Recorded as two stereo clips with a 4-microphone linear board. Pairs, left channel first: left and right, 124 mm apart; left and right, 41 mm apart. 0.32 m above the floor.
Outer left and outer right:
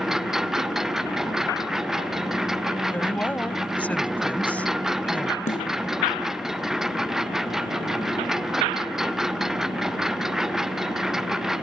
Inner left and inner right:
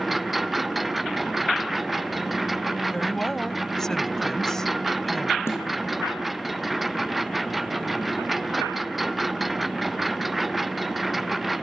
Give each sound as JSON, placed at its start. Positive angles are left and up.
{"t": 0.0, "sound": "a lawn mower", "side_deg": -5}
{"t": 2.9, "sound": "a woman speaking", "side_deg": 10}
{"t": 5.5, "sound": "a snare drum", "side_deg": 90}